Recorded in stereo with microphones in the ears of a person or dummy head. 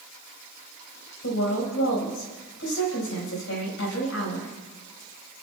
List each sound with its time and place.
1.2 s a woman speaking: 80° left, 5.5 m